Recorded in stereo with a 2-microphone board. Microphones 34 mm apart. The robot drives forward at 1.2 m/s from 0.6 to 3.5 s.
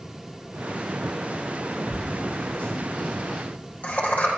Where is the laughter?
45° left (ahead or behind), 10 m; by 4.3 s 55° left (ahead or behind), 9 m.